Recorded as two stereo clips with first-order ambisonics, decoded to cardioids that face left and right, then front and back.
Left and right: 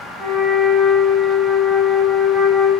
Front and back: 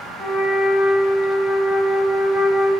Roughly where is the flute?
Right.